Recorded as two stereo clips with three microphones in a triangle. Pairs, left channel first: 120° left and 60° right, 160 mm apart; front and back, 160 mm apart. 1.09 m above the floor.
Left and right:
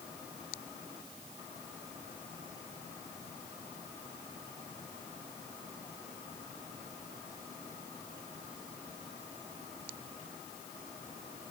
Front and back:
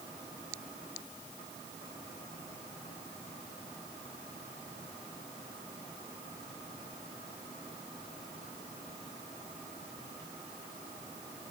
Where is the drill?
I don't hear a drill.